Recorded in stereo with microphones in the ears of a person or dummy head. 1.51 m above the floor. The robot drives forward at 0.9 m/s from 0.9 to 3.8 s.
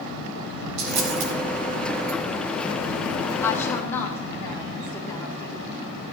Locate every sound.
0.8 s a dropped coin: 65° right (ahead or behind), 2.5 m; by 1.3 s 70° right (ahead or behind), 2.5 m
3.4 s a woman speaking: 15° left (ahead or behind), 1.7 m; by 5.6 s 10° left (ahead or behind), 2 m